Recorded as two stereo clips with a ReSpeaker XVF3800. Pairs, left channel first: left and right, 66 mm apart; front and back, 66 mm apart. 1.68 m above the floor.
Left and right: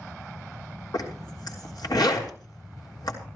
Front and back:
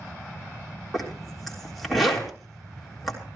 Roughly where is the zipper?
Left.